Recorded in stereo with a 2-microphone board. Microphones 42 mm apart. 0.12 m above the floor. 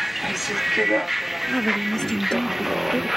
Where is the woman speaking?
15° left (ahead or behind).